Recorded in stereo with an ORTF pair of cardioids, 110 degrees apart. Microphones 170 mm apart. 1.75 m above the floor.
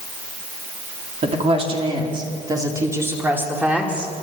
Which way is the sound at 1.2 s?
40° right.